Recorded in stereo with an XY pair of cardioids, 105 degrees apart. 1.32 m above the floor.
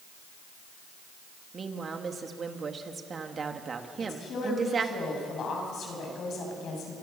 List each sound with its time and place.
1.5 s a woman speaking: 40° right, 2.5 m
4.0 s a woman speaking: 55° left, 8 m